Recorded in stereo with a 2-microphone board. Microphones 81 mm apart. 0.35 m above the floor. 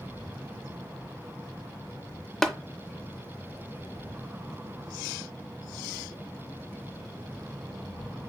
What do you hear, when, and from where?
2.4 s tapping: 5° left (ahead or behind), 0.5 m